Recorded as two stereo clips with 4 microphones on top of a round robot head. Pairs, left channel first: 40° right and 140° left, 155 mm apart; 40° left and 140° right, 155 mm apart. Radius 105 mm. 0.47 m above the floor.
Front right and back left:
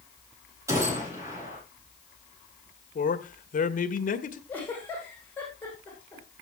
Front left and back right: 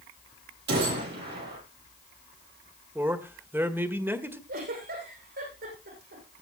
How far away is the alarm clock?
I don't hear an alarm clock.